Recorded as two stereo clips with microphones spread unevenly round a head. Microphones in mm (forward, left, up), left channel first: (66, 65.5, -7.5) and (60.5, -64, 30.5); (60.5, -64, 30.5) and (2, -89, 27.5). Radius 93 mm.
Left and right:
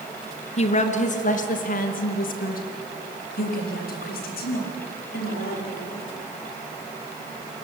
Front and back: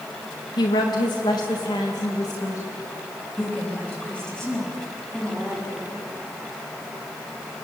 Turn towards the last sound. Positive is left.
turn(degrees=115)